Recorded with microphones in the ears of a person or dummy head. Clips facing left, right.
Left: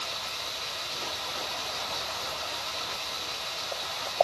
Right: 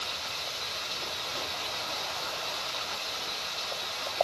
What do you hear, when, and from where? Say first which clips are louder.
0.0 s running water: left 1 dB; 30° right (ahead or behind), 1.5 m